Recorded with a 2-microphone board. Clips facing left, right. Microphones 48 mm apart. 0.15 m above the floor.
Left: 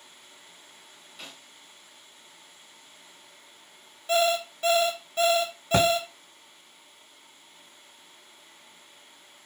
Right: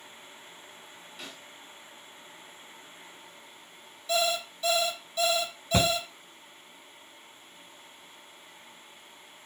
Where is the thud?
70° left (ahead or behind), 1.9 m.